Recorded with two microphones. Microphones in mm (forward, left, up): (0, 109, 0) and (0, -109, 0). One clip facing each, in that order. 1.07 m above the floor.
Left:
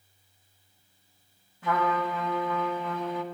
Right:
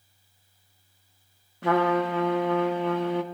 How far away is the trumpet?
About 1.4 m.